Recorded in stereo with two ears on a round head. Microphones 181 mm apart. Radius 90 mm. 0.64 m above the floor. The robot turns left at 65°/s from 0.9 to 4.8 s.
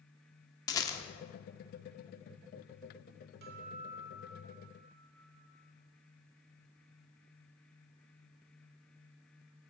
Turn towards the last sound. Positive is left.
turn(degrees=150)